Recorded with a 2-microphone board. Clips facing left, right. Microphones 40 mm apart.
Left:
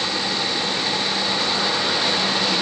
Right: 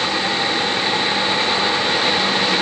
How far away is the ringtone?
I don't hear a ringtone.